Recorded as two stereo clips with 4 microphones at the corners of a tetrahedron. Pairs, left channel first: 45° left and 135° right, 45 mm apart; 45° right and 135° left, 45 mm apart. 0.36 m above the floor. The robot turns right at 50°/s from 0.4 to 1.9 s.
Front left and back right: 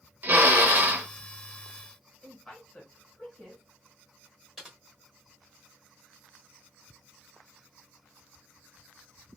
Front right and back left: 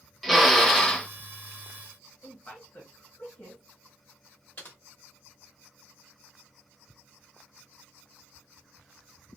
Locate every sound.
0.2 s a drill: 130° right, 0.7 m; by 1.1 s 95° right, 0.7 m
2.2 s a woman speaking: 25° right, 1.9 m
4.6 s typing on a keyboard: 60° right, 1.1 m